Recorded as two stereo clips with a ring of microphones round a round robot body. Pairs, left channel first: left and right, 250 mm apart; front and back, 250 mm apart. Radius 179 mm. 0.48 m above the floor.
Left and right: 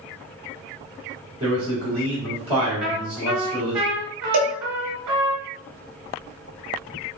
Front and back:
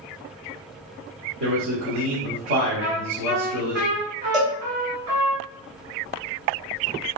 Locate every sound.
1.4 s a man speaking: 155° right, 1.6 m
2.8 s a trumpet: 120° right, 1.2 m
4.3 s a cowbell: 90° right, 0.7 m